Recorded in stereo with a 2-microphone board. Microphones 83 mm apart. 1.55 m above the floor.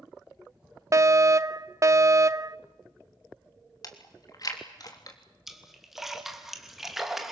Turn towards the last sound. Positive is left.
turn(degrees=-5)  # may be behind; listen again after turning